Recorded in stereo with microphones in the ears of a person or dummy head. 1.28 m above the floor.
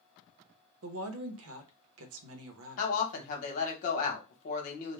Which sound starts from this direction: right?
A woman speaking, at 0.8 s.